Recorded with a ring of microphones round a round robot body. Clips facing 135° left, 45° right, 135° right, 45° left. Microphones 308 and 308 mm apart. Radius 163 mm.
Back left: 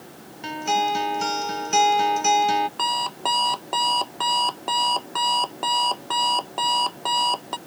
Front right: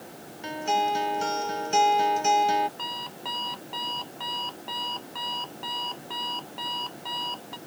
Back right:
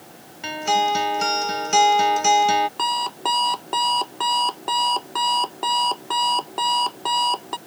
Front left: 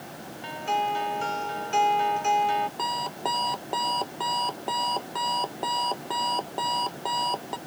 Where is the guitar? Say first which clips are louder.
Back left 2 dB, back right 7 dB; 155° right.